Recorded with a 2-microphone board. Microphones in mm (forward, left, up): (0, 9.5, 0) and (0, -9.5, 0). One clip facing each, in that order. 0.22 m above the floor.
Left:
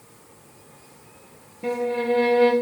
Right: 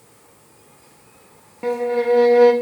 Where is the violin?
85° right, 2 m.